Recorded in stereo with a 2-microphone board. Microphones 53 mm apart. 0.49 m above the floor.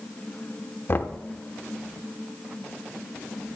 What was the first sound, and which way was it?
Knocking, 45° left (ahead or behind).